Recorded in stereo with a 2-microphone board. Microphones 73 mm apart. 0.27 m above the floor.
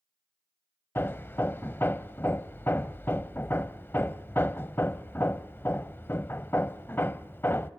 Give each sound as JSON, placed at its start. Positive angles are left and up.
{"t": 0.9, "sound": "hammering", "side_deg": 30, "distance_m": 0.5}